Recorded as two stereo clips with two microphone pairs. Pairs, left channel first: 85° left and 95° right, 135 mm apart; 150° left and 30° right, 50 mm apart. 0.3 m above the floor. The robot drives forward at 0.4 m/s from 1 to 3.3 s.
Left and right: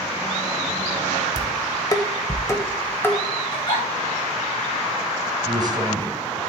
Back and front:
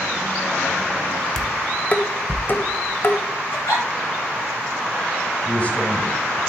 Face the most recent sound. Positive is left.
turn(degrees=-150)